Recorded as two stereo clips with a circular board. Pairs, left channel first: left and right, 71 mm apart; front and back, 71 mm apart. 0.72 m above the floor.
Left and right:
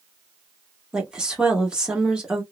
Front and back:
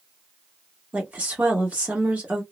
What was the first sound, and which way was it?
A woman speaking, 150° right.